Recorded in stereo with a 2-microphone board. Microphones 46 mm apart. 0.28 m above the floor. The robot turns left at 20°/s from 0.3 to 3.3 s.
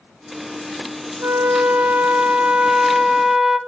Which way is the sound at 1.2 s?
135° right.